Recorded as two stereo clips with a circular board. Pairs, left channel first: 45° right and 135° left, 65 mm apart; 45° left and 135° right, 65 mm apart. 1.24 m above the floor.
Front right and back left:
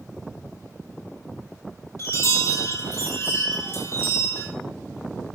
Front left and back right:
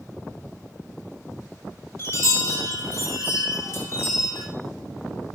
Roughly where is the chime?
Ahead.